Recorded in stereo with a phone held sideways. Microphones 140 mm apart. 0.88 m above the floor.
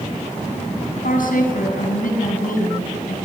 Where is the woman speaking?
85° left, 7.5 m.